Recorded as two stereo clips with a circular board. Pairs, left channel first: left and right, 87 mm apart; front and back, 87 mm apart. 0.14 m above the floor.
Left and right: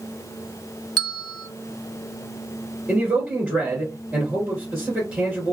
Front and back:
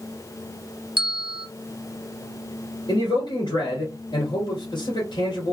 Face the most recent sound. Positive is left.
turn(degrees=-10)